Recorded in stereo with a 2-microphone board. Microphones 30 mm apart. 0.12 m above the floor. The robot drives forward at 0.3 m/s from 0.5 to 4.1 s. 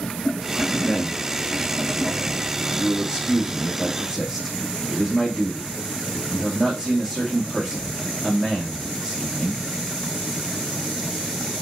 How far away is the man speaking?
About 4 m.